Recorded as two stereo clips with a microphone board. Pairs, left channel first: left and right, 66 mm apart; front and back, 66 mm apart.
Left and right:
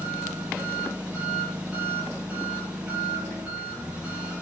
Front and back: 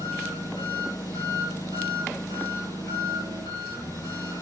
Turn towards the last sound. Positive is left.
turn(degrees=-15)